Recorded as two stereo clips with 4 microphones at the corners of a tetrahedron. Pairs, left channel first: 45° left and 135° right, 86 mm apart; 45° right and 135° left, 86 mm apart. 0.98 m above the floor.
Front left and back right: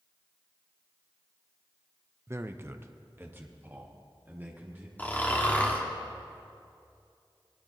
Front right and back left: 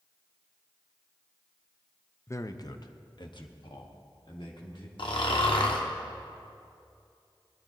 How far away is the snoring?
About 1.2 m.